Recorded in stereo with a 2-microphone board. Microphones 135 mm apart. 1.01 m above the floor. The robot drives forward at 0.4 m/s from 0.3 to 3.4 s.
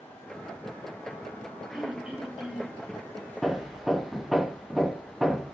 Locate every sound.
1.7 s throat clearing: 5° right (ahead or behind), 3.5 m
3.4 s hammering: centre (ahead or behind), 0.8 m